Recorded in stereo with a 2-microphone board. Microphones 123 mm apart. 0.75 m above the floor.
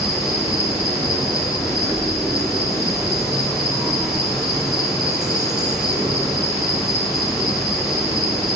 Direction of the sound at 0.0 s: 5° right (ahead or behind).